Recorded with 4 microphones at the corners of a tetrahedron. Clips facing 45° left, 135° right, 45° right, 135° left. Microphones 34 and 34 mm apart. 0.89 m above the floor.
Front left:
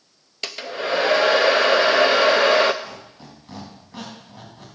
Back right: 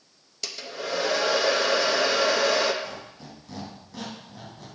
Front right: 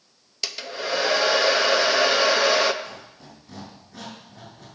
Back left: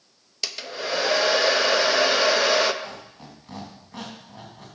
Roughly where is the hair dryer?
Ahead left.